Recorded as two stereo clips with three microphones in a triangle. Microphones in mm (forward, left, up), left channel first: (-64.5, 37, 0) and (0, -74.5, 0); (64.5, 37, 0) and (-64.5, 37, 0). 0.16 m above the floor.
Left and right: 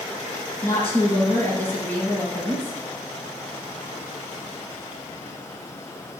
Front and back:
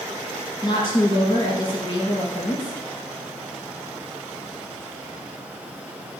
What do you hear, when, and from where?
0.6 s a woman speaking: 55° left, 4 m